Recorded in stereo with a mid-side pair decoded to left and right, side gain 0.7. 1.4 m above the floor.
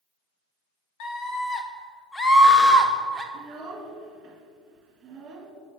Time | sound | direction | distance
1.0 | a scream | 50° left | 1.2 m
3.3 | a child speaking | 40° right | 1.6 m